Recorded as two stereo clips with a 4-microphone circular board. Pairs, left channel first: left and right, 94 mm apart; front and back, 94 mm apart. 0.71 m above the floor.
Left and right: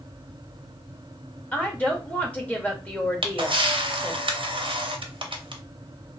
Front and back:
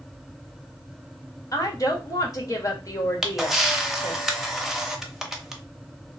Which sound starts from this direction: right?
A camera shutter, at 3.2 s.